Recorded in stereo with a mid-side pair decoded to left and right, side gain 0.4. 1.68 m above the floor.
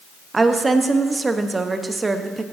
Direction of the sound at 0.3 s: 30° right.